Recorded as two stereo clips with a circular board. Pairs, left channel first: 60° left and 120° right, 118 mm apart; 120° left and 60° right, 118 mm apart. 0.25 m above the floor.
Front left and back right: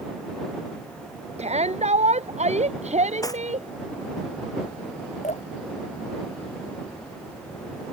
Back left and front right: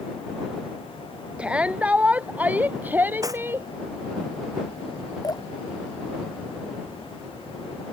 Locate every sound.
1.4 s a shout: 140° right; by 3.7 s 130° right
3.2 s cutlery clinking: straight ahead
5.2 s dripping: 65° left